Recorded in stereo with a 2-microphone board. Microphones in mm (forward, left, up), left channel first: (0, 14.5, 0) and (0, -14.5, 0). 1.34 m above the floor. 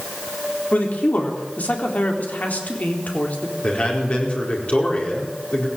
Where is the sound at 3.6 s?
50° left (ahead or behind), 4.5 m.